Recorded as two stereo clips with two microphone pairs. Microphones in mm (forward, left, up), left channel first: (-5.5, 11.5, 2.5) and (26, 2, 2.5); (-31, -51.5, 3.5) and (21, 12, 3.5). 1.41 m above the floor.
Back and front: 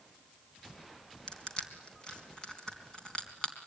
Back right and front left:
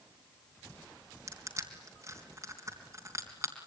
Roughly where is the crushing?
Left.